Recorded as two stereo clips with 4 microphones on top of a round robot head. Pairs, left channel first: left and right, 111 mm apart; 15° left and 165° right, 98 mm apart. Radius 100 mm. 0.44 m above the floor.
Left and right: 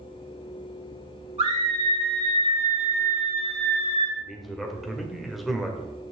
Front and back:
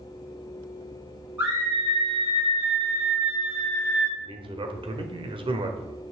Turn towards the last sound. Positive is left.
turn(degrees=180)